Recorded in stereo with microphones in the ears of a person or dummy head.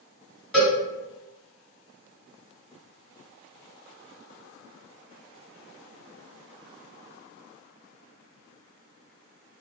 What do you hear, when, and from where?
0.5 s a cowbell: 5° left (ahead or behind), 1.4 m